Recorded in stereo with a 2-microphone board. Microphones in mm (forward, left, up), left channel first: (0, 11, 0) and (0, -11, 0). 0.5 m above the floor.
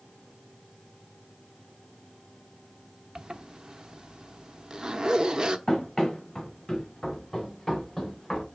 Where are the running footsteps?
25° left (ahead or behind), 4 m; by 8.4 s 15° left (ahead or behind), 5.5 m.